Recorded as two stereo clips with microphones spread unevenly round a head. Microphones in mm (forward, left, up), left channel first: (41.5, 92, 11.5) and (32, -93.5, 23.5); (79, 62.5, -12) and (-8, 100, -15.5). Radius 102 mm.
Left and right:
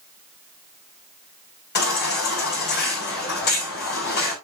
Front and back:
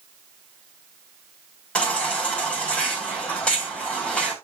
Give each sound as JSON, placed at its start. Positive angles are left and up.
{"t": 1.8, "sound": "a baby crying", "azimuth_deg": 55, "distance_m": 6.5}